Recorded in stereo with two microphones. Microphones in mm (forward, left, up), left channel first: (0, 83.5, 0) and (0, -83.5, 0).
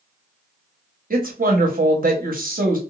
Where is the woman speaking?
60° right (ahead or behind), 1.0 m.